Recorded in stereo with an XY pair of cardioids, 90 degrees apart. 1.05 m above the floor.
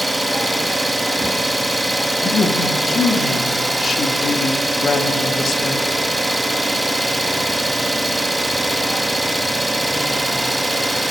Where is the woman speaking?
50° left, 1.6 m.